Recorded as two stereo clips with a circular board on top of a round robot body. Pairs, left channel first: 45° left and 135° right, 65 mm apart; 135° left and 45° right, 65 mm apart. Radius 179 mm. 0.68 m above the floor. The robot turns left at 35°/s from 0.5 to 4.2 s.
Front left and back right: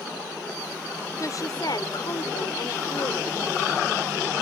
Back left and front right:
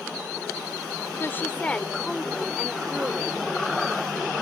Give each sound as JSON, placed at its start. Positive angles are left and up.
{"t": 1.2, "sound": "a woman speaking", "azimuth_deg": 80}